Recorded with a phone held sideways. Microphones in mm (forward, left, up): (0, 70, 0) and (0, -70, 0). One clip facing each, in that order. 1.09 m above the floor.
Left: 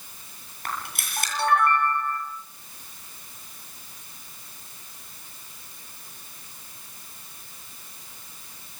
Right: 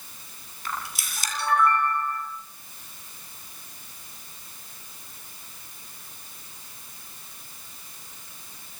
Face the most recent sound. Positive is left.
turn(degrees=55)  # may be behind; listen again after turning